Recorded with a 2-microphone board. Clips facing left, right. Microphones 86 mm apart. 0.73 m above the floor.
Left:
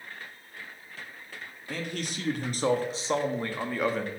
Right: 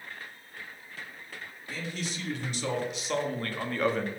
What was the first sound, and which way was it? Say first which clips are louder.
A man speaking: left 2 dB; 60° left (ahead or behind).